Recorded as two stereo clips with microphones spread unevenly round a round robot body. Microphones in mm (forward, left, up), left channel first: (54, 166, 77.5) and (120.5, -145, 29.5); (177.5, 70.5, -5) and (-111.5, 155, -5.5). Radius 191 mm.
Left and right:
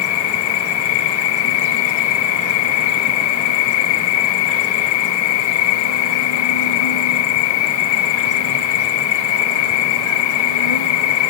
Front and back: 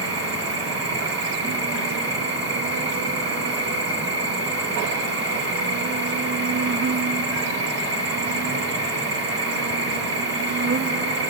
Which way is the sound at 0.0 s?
110° left.